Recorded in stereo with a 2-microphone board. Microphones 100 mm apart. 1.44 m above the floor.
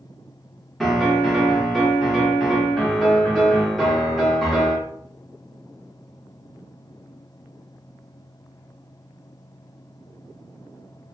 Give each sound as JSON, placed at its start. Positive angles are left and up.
{"t": 0.8, "sound": "a piano", "side_deg": 0, "distance_m": 0.7}